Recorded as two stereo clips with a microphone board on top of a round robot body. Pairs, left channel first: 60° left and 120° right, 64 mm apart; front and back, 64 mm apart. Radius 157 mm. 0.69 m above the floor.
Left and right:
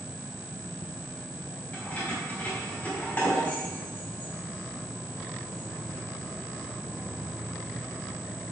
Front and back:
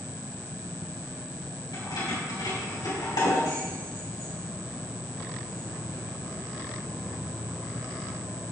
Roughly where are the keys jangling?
Ahead.